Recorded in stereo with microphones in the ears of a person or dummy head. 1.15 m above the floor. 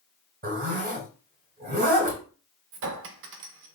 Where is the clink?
65° right (ahead or behind), 0.5 m.